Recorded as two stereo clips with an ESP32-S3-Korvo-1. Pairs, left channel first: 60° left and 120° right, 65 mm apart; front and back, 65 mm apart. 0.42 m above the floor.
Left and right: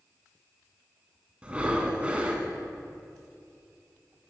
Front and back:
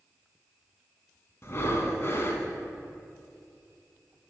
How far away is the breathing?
About 0.8 m.